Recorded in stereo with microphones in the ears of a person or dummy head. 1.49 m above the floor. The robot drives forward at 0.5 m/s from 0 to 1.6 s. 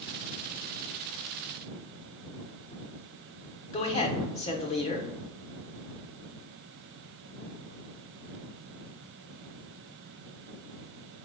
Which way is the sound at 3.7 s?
30° left (ahead or behind).